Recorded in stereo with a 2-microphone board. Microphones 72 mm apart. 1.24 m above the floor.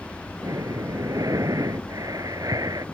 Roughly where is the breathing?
Right.